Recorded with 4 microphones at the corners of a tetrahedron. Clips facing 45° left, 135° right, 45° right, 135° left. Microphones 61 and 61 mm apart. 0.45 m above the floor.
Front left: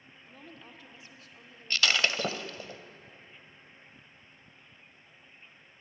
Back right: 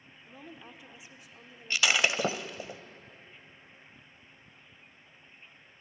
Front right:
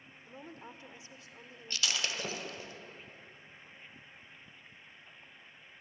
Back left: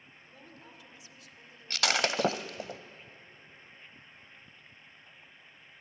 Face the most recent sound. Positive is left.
turn(degrees=150)